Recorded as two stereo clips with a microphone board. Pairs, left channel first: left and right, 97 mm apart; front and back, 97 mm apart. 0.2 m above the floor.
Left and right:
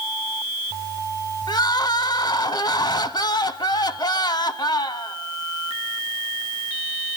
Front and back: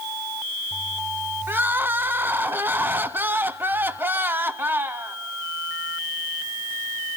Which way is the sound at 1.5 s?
115° left.